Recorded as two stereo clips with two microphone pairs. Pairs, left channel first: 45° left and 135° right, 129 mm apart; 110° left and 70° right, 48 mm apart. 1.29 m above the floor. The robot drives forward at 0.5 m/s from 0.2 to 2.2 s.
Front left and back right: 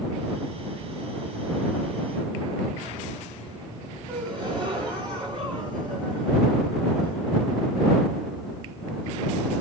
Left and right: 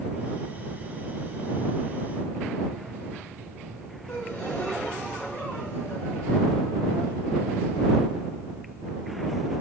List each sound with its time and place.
4.1 s a gasp: 175° right, 2 m